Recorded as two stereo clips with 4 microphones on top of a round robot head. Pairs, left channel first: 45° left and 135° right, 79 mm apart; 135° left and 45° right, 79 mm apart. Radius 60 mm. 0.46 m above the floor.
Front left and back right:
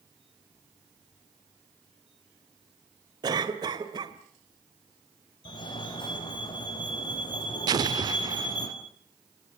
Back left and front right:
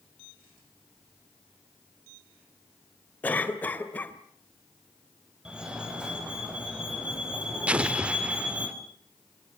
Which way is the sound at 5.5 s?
35° left.